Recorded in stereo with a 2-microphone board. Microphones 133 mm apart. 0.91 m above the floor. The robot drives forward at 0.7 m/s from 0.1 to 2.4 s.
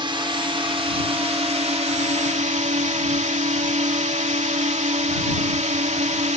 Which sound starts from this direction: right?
A drone, at 0.0 s.